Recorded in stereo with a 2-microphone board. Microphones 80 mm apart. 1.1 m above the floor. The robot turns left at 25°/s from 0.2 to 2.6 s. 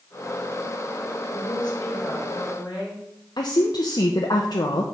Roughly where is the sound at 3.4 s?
Left.